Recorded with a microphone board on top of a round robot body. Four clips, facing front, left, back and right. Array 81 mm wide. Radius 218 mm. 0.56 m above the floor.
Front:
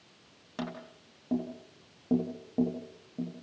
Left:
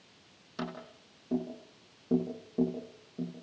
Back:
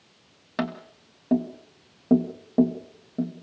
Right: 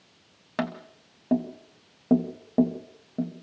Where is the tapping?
115° right, 2 m.